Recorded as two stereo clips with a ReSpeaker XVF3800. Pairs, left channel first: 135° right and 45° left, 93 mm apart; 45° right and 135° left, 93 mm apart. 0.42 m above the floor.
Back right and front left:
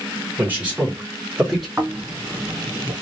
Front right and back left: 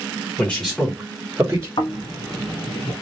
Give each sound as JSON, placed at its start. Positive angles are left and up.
{"t": 0.4, "sound": "a man speaking", "azimuth_deg": 5, "distance_m": 1.4}
{"t": 1.8, "sound": "snoring", "azimuth_deg": -20, "distance_m": 1.0}